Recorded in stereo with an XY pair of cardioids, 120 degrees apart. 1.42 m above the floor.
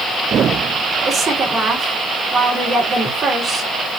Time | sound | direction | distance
1.0 | a woman speaking | 45° right | 3.5 m